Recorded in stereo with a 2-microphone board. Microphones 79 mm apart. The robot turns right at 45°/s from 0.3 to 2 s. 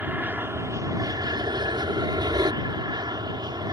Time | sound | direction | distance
0.0 | an aircraft | 155° right | ?